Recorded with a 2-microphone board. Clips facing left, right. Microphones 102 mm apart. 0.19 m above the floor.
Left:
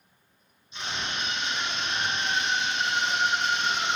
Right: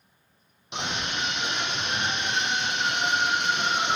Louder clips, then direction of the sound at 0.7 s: Right 3 dB; 80° right.